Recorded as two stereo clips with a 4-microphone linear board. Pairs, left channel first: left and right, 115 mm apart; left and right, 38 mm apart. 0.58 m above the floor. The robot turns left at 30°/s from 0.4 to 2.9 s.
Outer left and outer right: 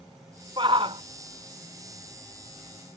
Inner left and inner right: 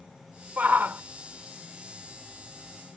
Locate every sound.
0.6 s a shout: 45° right (ahead or behind); by 1.0 s 55° right (ahead or behind)